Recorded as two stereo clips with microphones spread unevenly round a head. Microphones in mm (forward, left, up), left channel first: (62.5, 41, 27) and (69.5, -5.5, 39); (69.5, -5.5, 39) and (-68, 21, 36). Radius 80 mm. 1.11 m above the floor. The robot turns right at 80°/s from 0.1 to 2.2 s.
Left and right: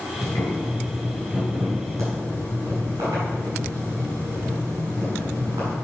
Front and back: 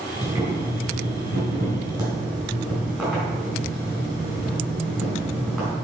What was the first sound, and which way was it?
Boiling, 95° left.